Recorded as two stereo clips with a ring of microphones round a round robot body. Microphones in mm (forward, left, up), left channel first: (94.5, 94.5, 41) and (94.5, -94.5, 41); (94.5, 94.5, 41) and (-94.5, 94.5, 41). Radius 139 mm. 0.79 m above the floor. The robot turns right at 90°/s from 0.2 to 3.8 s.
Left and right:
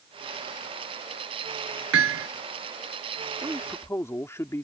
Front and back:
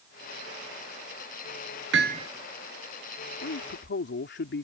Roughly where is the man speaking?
Ahead.